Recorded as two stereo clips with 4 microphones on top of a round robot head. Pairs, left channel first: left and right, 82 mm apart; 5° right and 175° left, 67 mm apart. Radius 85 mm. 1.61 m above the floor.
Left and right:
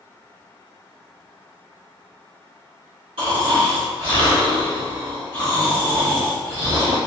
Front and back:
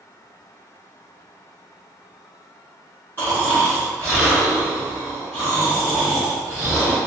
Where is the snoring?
75° right, 1.6 m.